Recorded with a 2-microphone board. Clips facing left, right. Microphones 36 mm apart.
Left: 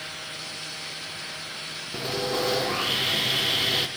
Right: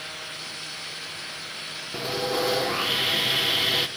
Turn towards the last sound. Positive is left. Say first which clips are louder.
# right 1 dB
turn(degrees=-5)  # may be behind; listen again after turning